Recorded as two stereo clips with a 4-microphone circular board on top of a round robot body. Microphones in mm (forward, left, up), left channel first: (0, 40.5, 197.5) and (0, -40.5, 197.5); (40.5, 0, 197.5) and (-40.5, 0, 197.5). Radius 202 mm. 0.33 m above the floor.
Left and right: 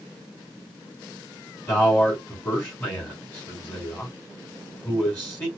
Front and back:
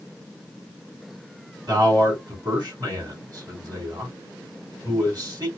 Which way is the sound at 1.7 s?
155° left.